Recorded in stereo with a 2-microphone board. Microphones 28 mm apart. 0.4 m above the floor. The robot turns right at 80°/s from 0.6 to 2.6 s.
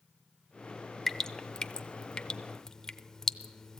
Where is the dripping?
15° left (ahead or behind), 0.5 m; by 3.8 s 20° left (ahead or behind), 0.5 m.